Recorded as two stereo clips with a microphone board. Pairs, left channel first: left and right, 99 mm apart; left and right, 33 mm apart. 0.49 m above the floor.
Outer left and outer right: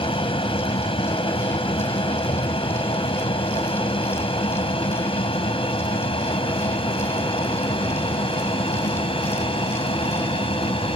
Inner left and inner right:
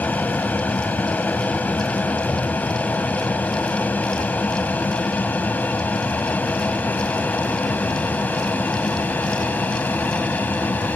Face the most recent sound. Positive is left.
turn(degrees=65)  # may be behind; listen again after turning